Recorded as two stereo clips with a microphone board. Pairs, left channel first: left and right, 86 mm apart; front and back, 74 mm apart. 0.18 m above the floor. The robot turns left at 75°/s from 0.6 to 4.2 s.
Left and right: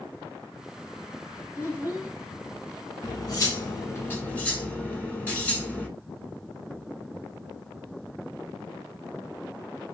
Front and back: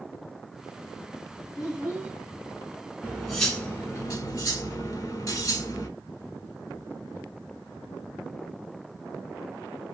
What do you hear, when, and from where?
1.6 s a child speaking: 110° right, 1.2 m; by 2.1 s 150° right, 1.2 m
3.0 s cutlery clinking: 110° left, 1.1 m; by 5.9 s 20° left, 1.1 m